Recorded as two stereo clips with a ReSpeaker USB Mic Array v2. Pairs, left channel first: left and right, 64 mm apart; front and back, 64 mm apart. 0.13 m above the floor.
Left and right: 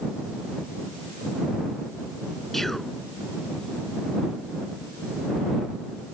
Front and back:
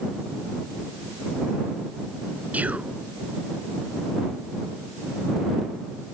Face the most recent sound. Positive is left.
turn(degrees=170)